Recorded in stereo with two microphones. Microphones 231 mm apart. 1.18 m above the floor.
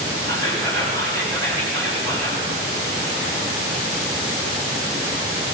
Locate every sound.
0.3 s whispering: 70° right (ahead or behind), 4 m